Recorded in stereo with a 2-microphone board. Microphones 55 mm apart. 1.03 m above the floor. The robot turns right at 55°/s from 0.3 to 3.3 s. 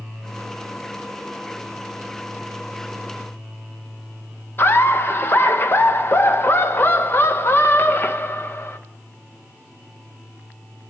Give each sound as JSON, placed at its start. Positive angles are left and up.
{"t": 4.6, "sound": "laughter", "side_deg": 45, "distance_m": 0.6}